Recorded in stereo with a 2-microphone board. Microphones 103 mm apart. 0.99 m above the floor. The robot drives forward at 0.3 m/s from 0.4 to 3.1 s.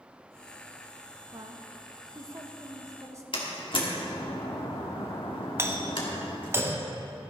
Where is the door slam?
55° left (ahead or behind), 1.6 m.